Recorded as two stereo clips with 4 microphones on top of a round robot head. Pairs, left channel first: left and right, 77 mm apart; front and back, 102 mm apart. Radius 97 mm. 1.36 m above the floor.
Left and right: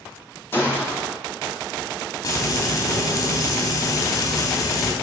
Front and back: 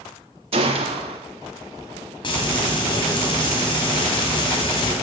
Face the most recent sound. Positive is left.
turn(degrees=50)